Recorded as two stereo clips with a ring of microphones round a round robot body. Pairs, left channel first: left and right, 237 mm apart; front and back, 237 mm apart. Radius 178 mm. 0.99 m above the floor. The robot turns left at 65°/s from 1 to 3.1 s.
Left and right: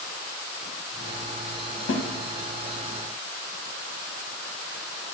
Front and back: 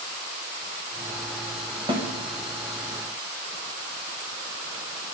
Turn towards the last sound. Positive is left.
turn(degrees=35)